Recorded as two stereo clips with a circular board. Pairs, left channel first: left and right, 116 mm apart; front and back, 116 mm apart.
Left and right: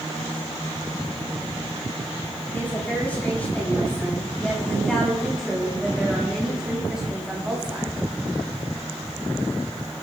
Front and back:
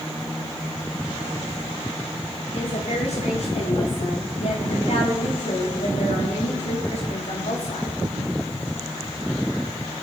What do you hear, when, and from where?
2.5 s a woman speaking: 15° left, 8.5 m; by 8.0 s 10° right, 7.5 m